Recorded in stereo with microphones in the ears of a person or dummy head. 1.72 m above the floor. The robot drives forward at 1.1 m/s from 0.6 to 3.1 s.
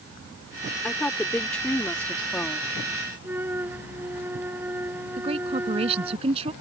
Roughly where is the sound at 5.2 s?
Right.